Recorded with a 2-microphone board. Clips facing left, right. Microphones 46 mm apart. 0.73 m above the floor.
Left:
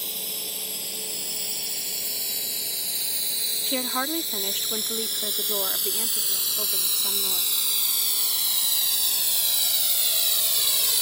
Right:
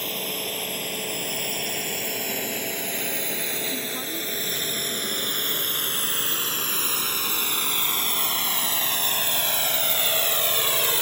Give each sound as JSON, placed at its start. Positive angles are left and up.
{"t": 0.0, "sound": "a drone", "side_deg": -45}
{"t": 3.7, "sound": "a woman speaking", "side_deg": 55}